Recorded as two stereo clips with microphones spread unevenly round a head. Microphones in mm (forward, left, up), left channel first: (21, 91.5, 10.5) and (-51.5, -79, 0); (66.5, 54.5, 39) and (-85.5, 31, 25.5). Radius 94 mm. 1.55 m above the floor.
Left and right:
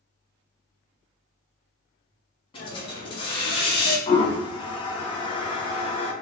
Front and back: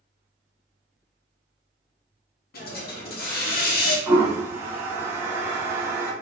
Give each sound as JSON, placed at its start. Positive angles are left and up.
{"t": 2.5, "sound": "a hiss", "azimuth_deg": 5, "distance_m": 0.8}
{"t": 4.1, "sound": "a toilet flushing", "azimuth_deg": 115, "distance_m": 0.7}